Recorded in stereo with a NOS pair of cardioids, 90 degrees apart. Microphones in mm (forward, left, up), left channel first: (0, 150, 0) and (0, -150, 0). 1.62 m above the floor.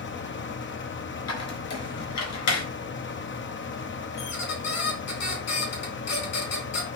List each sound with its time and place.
0.0 s a fan: 40° left, 1.0 m
1.3 s a squeak: 65° left, 4.5 m
4.2 s a squeak: 65° left, 3.5 m